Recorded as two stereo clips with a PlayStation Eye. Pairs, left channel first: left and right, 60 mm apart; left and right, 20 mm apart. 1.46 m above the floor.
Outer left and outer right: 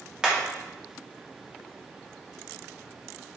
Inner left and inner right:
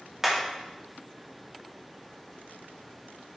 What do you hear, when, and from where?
0.2 s hammering: 10° right (ahead or behind), 2.5 m